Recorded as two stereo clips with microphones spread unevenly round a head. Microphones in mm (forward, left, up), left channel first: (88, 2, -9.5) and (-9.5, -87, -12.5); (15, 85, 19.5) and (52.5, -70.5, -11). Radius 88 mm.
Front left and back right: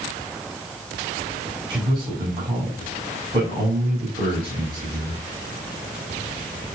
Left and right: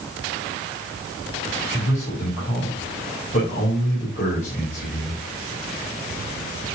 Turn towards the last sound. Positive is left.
turn(degrees=155)